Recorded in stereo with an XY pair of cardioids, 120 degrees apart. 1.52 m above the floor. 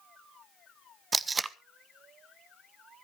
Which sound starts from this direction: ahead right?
Tape being pulled, at 1.1 s.